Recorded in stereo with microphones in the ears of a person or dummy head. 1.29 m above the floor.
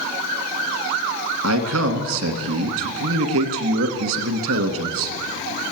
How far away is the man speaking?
About 1.6 m.